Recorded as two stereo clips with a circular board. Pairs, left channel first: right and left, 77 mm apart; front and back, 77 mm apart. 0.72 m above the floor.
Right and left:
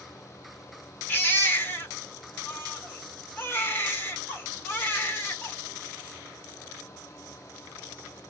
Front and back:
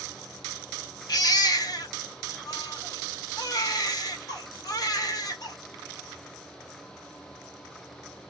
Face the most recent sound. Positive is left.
turn(degrees=-30)